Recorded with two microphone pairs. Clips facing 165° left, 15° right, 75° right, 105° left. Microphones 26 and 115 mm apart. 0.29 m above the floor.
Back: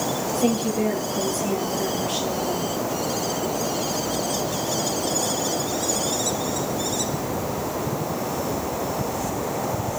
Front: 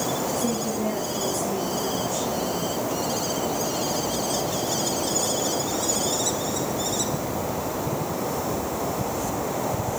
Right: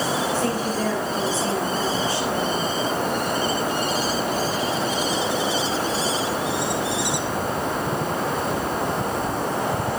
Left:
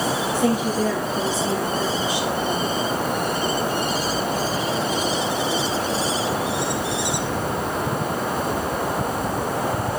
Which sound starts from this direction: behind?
A woman speaking, at 0.3 s.